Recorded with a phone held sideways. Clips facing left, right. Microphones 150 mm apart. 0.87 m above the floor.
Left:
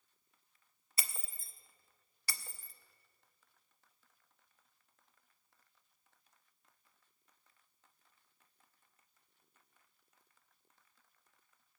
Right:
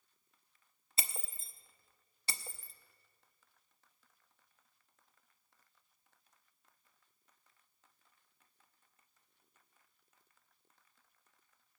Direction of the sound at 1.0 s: 25° right (ahead or behind).